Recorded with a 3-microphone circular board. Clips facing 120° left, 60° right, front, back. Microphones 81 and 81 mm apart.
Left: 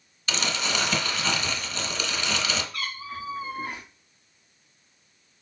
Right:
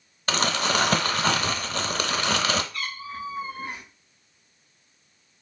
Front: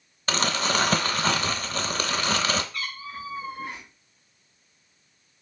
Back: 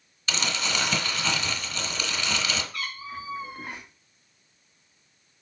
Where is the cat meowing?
150° left, 2 m.